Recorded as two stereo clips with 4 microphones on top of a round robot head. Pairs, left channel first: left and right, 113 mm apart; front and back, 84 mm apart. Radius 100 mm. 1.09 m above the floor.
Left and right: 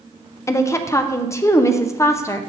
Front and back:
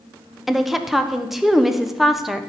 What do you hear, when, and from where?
0.5 s a woman speaking: 95° left, 0.7 m